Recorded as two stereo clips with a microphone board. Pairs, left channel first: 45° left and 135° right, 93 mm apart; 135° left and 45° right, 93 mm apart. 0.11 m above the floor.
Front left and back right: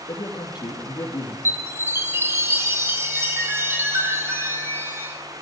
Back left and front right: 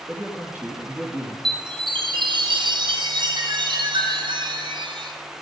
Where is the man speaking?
30° left, 3 m.